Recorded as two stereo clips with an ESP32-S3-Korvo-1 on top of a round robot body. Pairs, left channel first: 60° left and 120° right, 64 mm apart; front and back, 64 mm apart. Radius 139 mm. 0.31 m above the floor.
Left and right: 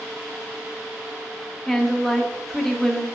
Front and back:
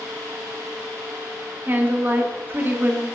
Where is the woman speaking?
145° left, 1.7 m.